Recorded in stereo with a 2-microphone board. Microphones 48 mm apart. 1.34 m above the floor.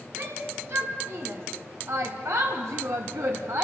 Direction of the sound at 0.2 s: 60° right (ahead or behind).